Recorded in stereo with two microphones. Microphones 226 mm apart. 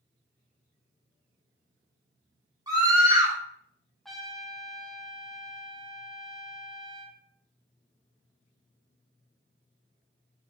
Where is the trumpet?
Centre (ahead or behind), 0.9 m.